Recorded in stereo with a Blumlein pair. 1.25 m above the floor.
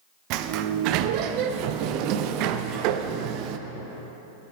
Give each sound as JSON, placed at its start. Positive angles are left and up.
{"t": 0.3, "sound": "a sliding door", "azimuth_deg": -40, "distance_m": 0.6}